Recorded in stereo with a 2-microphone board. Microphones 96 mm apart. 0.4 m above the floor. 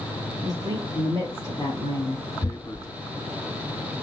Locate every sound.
0.4 s a woman speaking: 45° right (ahead or behind), 1.3 m; by 2.2 s 50° right (ahead or behind), 2.5 m
2.4 s tearing paper: 40° left (ahead or behind), 0.8 m